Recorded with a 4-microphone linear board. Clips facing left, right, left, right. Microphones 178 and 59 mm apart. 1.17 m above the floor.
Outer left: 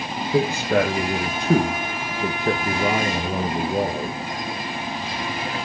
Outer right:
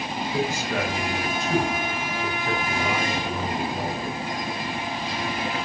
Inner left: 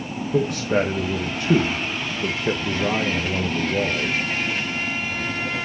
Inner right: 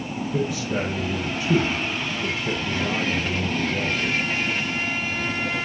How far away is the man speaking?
About 1.1 m.